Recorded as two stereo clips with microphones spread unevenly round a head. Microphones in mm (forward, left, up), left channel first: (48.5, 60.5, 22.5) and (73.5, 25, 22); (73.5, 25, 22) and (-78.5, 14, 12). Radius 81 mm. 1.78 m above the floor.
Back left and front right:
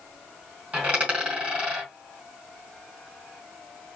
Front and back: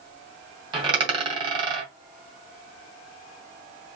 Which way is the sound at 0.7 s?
120° right.